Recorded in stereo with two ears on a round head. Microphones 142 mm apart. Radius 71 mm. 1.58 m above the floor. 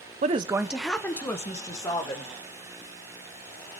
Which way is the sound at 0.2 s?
45° right (ahead or behind).